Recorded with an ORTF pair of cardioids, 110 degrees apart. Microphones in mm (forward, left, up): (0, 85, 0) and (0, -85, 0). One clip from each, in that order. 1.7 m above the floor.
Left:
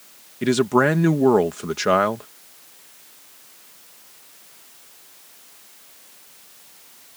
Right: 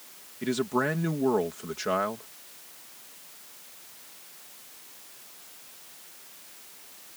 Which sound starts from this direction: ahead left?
A man speaking, at 0.4 s.